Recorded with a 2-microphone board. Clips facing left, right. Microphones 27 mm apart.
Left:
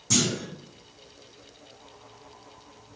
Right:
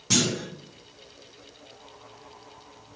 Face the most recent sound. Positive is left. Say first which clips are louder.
# right 1 dB
turn(degrees=-40)  # may be behind; listen again after turning